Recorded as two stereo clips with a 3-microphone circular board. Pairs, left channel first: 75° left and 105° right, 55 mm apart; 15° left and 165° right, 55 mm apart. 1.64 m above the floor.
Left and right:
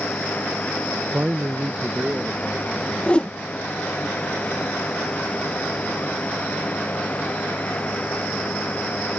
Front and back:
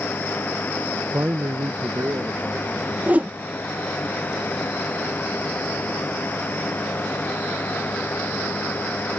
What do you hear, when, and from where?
1.1 s a man speaking: 150° right; by 3.0 s 165° right
3.1 s a whoosh: 140° left